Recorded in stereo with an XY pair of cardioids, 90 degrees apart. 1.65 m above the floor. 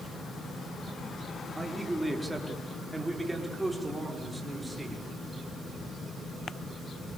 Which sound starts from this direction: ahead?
A man speaking, at 1.6 s.